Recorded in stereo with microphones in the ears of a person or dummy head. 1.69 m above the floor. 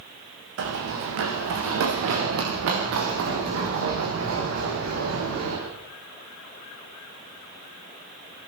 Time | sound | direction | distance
0.6 | running footsteps | 70° right (ahead or behind) | 5.5 m